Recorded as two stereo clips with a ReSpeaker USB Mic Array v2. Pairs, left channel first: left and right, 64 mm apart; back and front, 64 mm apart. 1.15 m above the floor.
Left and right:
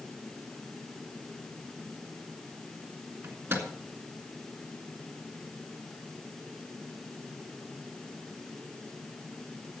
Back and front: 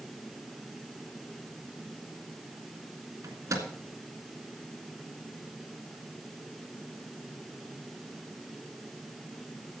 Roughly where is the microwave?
Ahead right.